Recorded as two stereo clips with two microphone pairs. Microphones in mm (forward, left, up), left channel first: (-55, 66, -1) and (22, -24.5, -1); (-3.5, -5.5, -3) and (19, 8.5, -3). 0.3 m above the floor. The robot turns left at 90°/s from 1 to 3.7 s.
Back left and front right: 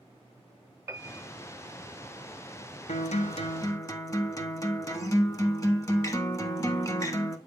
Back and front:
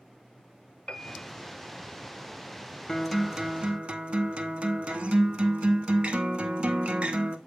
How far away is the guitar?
About 0.8 m.